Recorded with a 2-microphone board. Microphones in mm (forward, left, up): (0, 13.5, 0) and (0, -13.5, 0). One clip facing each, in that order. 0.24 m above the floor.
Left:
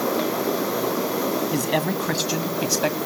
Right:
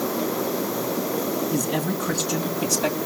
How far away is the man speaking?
About 2 m.